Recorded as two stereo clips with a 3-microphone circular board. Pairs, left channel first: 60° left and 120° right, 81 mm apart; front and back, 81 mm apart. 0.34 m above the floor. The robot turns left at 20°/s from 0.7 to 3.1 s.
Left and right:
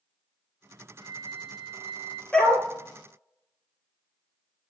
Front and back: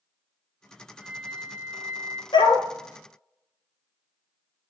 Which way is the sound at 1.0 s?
100° right.